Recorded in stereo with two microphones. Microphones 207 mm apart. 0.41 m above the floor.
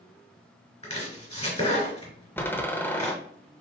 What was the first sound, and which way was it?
Chopping, 25° left (ahead or behind).